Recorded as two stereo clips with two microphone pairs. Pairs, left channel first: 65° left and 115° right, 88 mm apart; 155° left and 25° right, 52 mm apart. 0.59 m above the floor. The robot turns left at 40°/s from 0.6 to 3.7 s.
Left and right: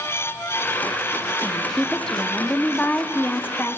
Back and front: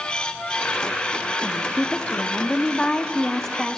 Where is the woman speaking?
165° left, 0.6 m; by 3.8 s 75° left, 0.6 m.